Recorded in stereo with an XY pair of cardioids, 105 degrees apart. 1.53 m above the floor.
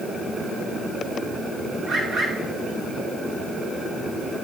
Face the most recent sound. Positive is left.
turn(degrees=-60)